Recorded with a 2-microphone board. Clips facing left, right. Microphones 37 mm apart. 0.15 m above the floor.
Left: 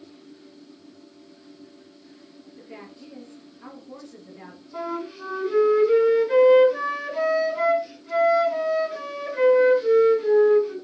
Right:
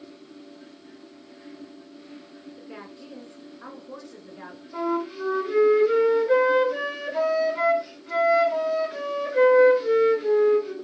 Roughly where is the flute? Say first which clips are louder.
Right 4 dB; right.